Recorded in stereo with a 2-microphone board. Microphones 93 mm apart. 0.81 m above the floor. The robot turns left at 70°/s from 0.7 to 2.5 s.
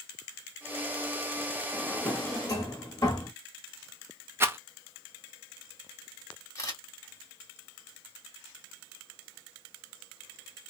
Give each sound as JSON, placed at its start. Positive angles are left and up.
{"t": 1.7, "sound": "a drawer", "side_deg": -10, "distance_m": 1.1}
{"t": 4.4, "sound": "a rattle", "side_deg": -25, "distance_m": 0.5}
{"t": 6.5, "sound": "a camera shutter", "side_deg": 35, "distance_m": 1.6}